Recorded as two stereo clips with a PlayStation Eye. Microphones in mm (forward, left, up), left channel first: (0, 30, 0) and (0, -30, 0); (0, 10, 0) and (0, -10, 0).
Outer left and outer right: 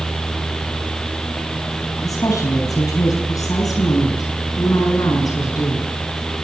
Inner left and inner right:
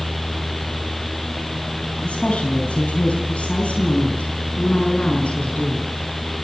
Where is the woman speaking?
70° left (ahead or behind), 4 m; by 5.9 s 75° left (ahead or behind), 7.5 m.